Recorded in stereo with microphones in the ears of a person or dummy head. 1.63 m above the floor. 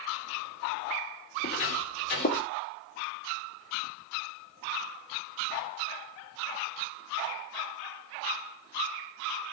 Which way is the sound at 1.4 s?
45° left (ahead or behind).